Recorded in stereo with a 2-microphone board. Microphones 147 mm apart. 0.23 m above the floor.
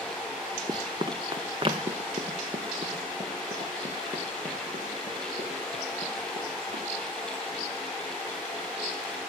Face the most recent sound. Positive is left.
turn(degrees=-45)  # may be behind; listen again after turning